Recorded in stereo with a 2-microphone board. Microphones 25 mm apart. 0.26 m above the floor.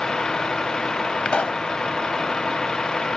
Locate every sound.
0.0 s a vehicle: 30° left (ahead or behind)
1.2 s a pop: 45° left (ahead or behind)